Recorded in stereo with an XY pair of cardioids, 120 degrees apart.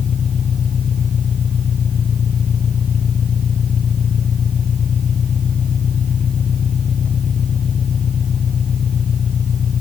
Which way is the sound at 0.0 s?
40° left.